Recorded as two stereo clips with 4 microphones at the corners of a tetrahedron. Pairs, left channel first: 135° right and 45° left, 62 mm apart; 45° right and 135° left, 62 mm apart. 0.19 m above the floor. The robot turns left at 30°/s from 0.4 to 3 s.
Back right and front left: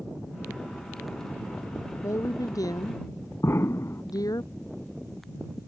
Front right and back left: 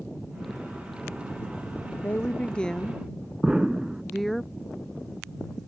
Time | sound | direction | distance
2.0 | a woman speaking | 105° right | ?
3.4 | an explosion | 150° right | ?